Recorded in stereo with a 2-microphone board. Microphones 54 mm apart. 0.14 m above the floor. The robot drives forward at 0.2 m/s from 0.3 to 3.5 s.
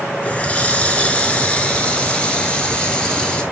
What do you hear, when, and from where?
0.2 s a running tap: 25° left (ahead or behind), 1.0 m; by 3.4 s 20° left (ahead or behind), 1.5 m